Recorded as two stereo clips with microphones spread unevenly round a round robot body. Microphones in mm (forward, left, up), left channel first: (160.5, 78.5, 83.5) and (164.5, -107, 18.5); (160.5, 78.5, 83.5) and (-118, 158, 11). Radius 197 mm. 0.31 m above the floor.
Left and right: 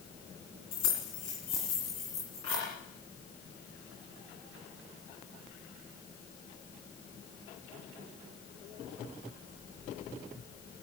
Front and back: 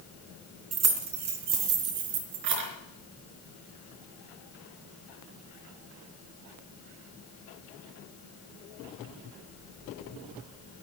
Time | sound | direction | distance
0.7 | keys jangling | 135° left | 3 m